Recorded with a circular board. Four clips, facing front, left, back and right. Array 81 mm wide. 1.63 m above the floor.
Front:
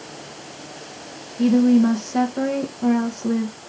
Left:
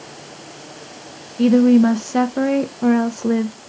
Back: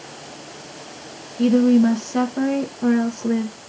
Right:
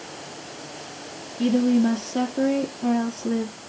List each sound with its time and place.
1.4 s a woman speaking: 95° left, 1.2 m